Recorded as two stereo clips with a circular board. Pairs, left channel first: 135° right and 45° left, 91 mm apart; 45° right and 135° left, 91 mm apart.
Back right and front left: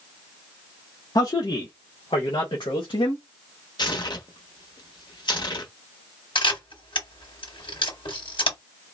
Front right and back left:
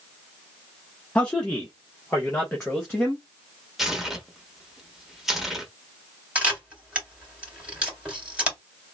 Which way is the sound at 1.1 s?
115° right.